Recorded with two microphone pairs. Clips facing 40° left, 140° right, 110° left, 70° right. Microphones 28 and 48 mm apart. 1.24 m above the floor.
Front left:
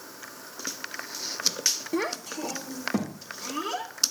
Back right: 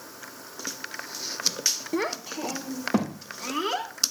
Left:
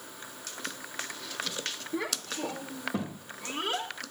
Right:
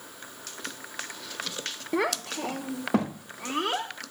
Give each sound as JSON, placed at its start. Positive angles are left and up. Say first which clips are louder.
{"t": 1.9, "sound": "a child speaking", "louder": "back right 1 dB, right 8 dB", "azimuth_deg": -50, "distance_m": 0.8}